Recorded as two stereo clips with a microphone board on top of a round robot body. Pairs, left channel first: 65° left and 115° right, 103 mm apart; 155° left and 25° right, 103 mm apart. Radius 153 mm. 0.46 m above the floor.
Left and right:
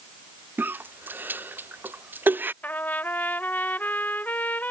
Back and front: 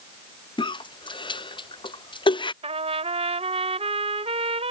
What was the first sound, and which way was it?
A cough, straight behind.